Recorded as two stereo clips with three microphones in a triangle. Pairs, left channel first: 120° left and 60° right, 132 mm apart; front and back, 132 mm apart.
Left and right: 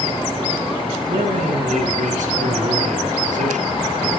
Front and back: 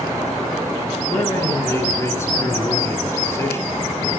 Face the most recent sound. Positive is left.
turn(degrees=-70)